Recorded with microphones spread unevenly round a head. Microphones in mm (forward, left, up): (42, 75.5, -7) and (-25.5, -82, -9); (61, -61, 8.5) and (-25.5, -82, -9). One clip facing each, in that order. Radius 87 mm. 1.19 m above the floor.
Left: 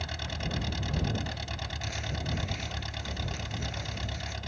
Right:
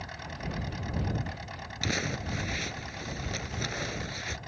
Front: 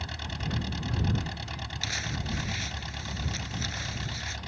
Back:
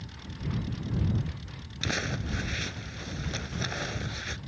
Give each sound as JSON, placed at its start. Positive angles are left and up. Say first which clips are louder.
{"t": 0.0, "sound": "an engine running", "louder": "left 2 dB, front 3 dB", "azimuth_deg": 20}
{"t": 1.8, "sound": "crumpling", "louder": "right 7 dB, back 5 dB", "azimuth_deg": -130}